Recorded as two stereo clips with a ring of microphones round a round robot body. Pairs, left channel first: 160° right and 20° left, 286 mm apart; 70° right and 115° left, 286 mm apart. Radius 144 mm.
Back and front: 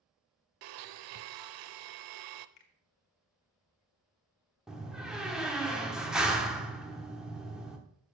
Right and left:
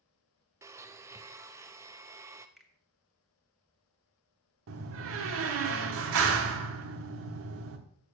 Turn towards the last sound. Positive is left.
turn(degrees=110)